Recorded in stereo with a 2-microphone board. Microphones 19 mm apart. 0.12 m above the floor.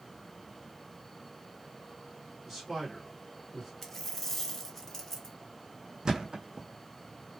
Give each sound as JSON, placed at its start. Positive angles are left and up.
{"t": 2.5, "sound": "a man speaking", "side_deg": -20, "distance_m": 1.7}
{"t": 3.8, "sound": "a dropped coin", "side_deg": 15, "distance_m": 0.7}
{"t": 6.0, "sound": "a thud", "side_deg": -35, "distance_m": 0.6}